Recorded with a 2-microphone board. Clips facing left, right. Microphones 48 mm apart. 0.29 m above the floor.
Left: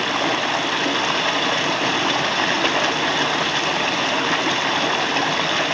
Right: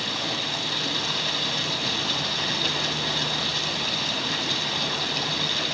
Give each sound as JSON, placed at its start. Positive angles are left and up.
{"t": 0.0, "sound": "running water", "side_deg": 45, "distance_m": 1.0}